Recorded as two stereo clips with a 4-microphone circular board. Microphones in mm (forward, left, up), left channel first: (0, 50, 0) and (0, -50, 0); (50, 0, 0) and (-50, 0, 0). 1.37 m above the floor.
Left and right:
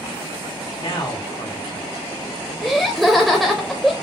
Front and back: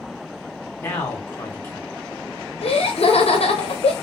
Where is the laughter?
Straight ahead, 0.5 m.